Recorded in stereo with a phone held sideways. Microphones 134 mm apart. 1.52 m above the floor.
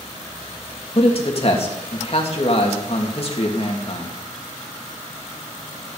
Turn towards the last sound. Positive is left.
turn(degrees=50)  # may be behind; listen again after turning